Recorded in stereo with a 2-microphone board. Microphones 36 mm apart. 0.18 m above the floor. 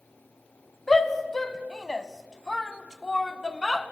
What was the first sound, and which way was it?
A shout, 5° left (ahead or behind).